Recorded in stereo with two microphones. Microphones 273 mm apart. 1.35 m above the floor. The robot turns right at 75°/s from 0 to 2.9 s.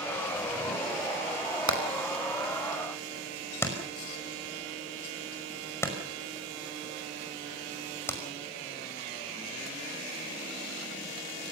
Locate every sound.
1.7 s hammering: 80° left, 5 m; by 8.2 s 10° left (ahead or behind), 5 m